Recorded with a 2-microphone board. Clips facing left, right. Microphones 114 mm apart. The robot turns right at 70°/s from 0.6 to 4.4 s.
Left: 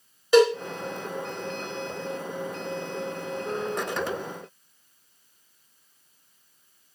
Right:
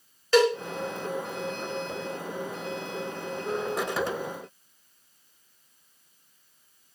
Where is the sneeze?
No sneeze in this recording.